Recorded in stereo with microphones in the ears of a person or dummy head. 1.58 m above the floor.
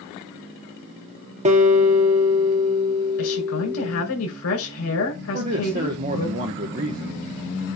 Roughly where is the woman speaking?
Left.